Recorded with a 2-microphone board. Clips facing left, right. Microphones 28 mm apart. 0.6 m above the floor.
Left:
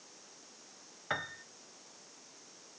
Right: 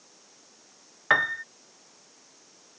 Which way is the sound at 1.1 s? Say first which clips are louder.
Right 15 dB; 55° right (ahead or behind).